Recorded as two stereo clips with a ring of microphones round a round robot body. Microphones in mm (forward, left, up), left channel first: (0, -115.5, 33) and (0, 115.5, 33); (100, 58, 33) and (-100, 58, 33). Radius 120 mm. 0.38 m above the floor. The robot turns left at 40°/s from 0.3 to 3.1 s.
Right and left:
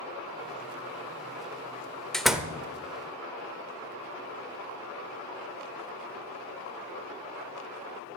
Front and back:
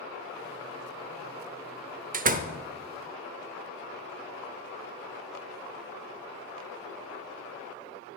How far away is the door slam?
About 0.9 m.